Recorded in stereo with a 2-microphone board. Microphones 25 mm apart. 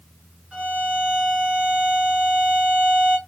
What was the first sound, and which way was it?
A violin, 50° right (ahead or behind).